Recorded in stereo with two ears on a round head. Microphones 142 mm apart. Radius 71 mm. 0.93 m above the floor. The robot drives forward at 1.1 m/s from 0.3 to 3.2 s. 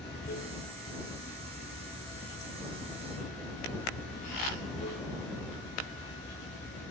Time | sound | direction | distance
0.0 | running water | 75° left (ahead or behind) | ?